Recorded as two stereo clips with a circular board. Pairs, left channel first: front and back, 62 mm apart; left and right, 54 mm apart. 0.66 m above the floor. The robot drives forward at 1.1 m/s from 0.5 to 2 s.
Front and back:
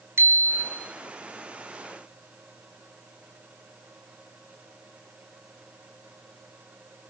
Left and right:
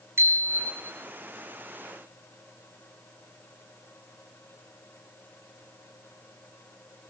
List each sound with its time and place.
0.2 s a bicycle bell: 130° right, 3.5 m; by 0.9 s 135° right, 4 m